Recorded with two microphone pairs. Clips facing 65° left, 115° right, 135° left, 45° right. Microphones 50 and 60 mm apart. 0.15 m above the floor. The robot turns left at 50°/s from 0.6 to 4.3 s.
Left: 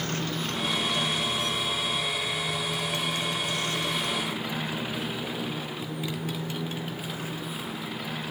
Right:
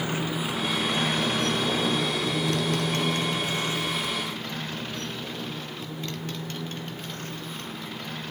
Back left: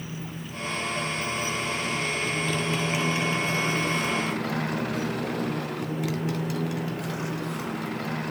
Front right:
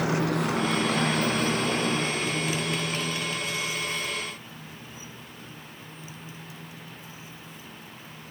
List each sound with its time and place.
0.0 s a motorcycle: 35° right; by 8.3 s 150° left